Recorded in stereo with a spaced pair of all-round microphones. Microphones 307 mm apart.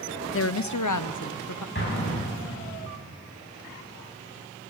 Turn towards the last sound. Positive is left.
turn(degrees=35)  # may be behind; listen again after turning